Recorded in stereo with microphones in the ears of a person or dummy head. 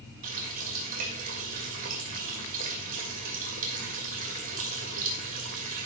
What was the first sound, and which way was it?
A running tap, 40° right (ahead or behind).